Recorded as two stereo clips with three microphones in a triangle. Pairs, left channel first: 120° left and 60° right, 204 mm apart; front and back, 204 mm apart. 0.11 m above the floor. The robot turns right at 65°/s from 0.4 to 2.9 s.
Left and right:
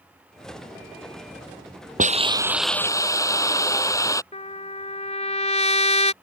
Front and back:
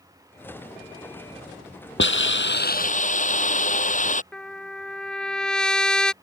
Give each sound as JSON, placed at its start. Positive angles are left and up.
{"t": 2.0, "sound": "a hiss", "azimuth_deg": -15}
{"t": 4.3, "sound": "a trumpet", "azimuth_deg": 85}